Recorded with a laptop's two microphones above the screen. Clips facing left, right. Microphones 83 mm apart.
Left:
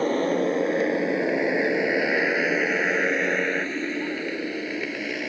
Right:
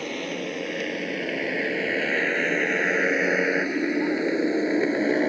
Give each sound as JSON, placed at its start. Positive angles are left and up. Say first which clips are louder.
{"t": 0.0, "sound": "a motorcycle", "louder": "left 8 dB", "side_deg": 35}